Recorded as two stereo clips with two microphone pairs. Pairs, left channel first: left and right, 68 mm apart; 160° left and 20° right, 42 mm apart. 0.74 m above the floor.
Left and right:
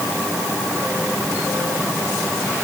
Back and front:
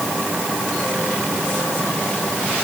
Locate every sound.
Only background noise.